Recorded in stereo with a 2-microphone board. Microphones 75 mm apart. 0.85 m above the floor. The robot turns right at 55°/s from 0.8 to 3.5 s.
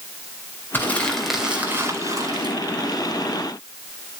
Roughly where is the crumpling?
Behind left.